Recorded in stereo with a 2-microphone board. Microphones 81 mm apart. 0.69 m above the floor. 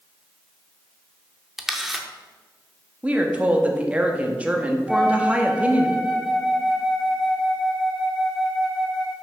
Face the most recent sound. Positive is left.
turn(degrees=-5)  # may be behind; listen again after turning